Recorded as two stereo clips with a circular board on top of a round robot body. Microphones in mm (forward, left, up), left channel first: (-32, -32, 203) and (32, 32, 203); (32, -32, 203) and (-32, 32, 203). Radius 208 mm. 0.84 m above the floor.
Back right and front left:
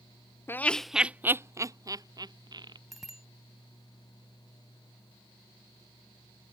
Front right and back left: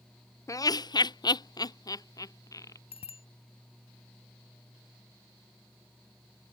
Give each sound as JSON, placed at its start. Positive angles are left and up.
{"t": 0.5, "sound": "laughter", "azimuth_deg": -80}
{"t": 2.9, "sound": "a bicycle bell", "azimuth_deg": -40}